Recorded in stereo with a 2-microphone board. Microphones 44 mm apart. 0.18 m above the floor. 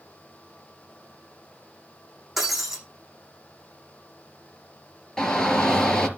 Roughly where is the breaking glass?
Centre.